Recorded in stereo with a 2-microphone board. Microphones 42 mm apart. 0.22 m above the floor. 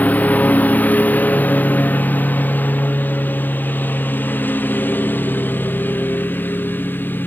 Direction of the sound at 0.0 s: 40° left (ahead or behind).